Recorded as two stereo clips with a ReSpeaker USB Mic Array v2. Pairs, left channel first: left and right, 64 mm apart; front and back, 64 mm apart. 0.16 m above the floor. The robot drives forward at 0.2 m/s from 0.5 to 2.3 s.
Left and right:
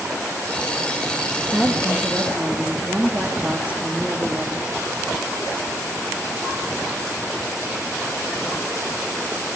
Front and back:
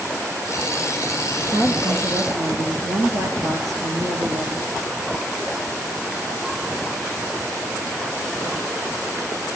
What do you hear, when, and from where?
1.5 s a woman speaking: 155° right, 3 m